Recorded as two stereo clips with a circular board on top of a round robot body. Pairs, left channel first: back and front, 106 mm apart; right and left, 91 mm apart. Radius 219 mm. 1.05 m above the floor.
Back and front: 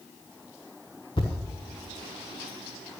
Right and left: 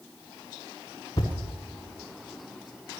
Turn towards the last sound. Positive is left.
turn(degrees=-135)